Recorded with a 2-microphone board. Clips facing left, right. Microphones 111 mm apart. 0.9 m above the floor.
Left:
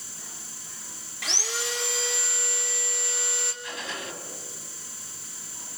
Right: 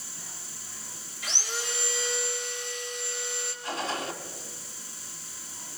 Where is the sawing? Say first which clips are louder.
Left 3 dB; 75° left (ahead or behind), 3 m.